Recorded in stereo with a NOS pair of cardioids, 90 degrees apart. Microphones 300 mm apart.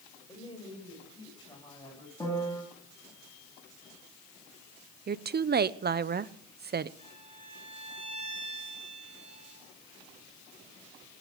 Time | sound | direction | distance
0.3 | a woman speaking | 15° left | 9 m
2.2 | a piano | 15° left | 4 m
5.1 | a woman speaking | 35° right | 0.8 m
7.0 | a violin | 15° left | 8 m